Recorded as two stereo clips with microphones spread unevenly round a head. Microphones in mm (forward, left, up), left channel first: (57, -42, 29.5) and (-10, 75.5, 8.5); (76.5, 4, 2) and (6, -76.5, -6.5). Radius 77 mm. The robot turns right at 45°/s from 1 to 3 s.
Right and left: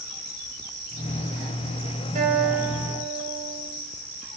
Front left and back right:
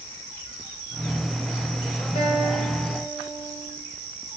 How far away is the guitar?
About 3 m.